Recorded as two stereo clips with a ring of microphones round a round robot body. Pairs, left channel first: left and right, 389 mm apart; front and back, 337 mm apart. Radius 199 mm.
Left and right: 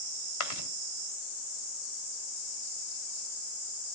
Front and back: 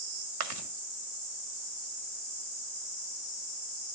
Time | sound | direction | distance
0.4 | chewing | 140° left | 2 m